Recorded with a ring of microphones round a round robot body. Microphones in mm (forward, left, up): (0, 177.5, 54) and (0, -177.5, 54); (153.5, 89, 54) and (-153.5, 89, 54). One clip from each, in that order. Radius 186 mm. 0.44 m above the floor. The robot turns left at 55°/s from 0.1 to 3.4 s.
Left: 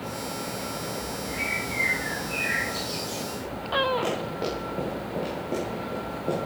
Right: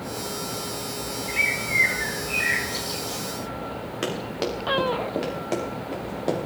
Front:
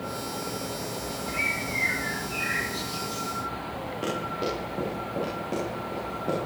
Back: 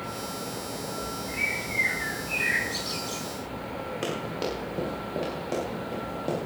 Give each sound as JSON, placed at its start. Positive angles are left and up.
{"t": 1.3, "sound": "a bird", "azimuth_deg": -75, "distance_m": 4.5}
{"t": 4.0, "sound": "running footsteps", "azimuth_deg": -115, "distance_m": 8.0}